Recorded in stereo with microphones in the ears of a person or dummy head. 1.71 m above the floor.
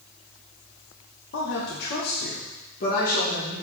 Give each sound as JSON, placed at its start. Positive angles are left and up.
{"t": 1.3, "sound": "a woman speaking", "side_deg": 75, "distance_m": 1.4}